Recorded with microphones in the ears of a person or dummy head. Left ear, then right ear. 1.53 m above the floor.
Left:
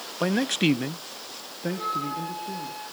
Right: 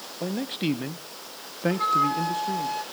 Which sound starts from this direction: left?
A man speaking, at 0.2 s.